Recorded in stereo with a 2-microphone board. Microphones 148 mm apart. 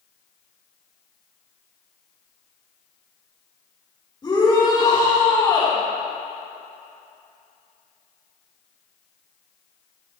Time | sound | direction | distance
4.2 | a shout | 30° left (ahead or behind) | 4.5 m